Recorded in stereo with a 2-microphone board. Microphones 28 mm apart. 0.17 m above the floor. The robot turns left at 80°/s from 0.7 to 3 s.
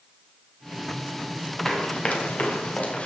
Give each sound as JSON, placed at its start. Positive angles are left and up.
{"t": 1.6, "sound": "running footsteps", "side_deg": 15, "distance_m": 3.5}